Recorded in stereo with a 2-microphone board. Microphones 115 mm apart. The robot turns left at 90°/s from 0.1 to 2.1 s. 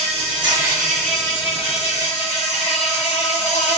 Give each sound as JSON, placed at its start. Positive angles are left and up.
{"t": 0.0, "sound": "an insect", "azimuth_deg": -105, "distance_m": 1.5}